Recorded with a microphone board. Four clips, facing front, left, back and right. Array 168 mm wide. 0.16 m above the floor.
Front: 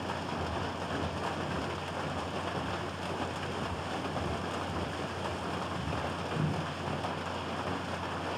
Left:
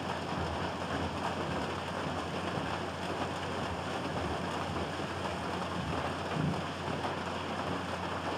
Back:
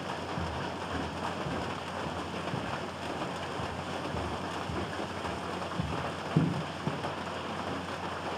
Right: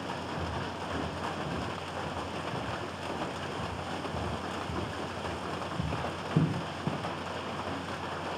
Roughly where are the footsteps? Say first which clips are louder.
Left 1 dB, even; behind.